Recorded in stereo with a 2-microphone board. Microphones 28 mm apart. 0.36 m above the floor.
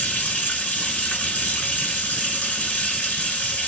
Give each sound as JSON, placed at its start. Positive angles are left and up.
{"t": 0.0, "sound": "running water", "side_deg": 65, "distance_m": 1.7}